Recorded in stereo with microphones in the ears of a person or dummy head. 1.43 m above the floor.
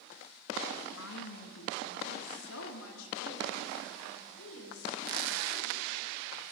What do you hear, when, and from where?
1.0 s a woman speaking: 85° left, 1.7 m; by 6.4 s 80° left, 6 m